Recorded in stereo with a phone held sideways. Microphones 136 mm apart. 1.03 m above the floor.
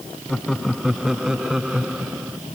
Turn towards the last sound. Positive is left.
turn(degrees=-10)  # may be behind; listen again after turning